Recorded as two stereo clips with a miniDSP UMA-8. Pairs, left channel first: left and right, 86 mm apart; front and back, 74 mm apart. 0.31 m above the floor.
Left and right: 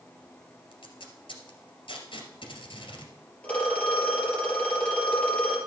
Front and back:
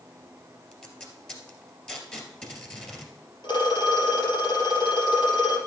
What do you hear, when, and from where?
0.7 s tape being pulled: 80° left, 2 m
3.4 s a phone ringing: 15° left, 3.5 m